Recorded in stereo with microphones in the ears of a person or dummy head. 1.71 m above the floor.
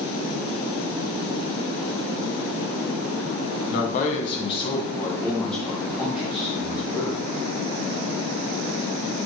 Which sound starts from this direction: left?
A man speaking, at 3.7 s.